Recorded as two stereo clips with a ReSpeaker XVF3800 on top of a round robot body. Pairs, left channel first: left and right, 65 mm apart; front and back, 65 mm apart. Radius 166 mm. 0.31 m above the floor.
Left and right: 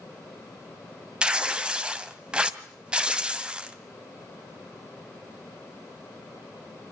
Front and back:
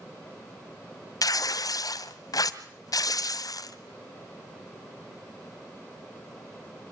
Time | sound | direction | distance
1.2 | tearing paper | 15° right | 1.8 m